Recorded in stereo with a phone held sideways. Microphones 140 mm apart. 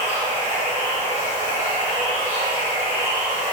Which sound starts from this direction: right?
Running water, at 0.0 s.